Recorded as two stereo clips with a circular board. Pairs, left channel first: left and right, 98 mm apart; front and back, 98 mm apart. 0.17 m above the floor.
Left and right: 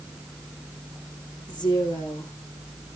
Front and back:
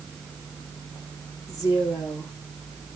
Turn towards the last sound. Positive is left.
turn(degrees=55)